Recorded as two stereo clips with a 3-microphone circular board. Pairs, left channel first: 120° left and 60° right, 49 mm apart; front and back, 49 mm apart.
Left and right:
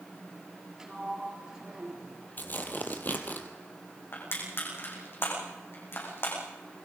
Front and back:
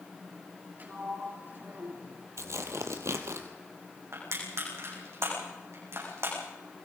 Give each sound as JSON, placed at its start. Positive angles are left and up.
{"t": 0.8, "sound": "a sliding door", "azimuth_deg": -135, "distance_m": 3.0}
{"t": 2.4, "sound": "tearing paper", "azimuth_deg": 165, "distance_m": 2.5}
{"t": 4.1, "sound": "crushing", "azimuth_deg": 155, "distance_m": 8.5}